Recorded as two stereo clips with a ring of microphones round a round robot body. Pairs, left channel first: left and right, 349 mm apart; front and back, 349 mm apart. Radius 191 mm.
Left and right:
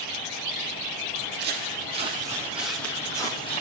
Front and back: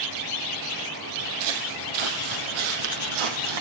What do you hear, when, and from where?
1.1 s footsteps: 150° right, 2 m; by 3.6 s 165° left, 2.5 m